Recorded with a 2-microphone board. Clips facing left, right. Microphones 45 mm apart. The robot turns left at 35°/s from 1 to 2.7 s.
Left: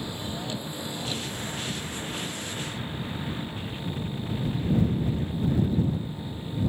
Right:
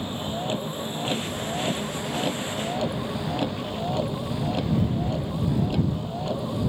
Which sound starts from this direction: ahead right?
A vehicle, at 0.0 s.